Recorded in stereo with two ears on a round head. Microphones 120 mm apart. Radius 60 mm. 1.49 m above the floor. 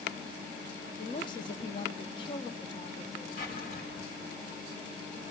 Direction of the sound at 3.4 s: 65° left (ahead or behind).